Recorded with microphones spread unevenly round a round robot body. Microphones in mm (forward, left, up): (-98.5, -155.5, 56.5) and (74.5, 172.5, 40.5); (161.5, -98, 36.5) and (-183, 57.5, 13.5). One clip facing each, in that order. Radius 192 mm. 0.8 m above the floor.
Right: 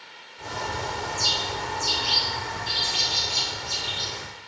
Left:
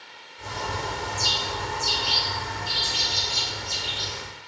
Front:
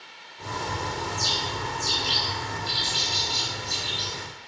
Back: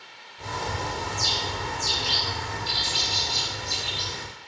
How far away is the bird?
About 1.5 m.